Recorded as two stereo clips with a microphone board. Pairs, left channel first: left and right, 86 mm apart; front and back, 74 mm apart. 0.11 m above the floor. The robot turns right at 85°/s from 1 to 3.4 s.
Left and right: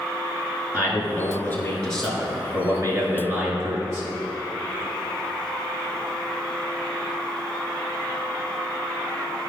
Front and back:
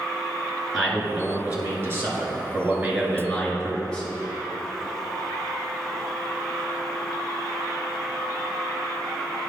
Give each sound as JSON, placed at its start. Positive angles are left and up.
{"t": 0.7, "sound": "a man speaking", "azimuth_deg": 90, "distance_m": 2.0}